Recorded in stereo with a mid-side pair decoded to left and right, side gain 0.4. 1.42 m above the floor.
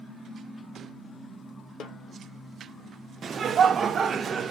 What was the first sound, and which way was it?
A snare drum, 65° left.